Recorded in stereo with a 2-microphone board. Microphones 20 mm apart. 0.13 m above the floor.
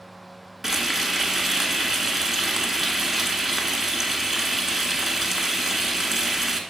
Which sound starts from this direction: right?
Frying, at 0.6 s.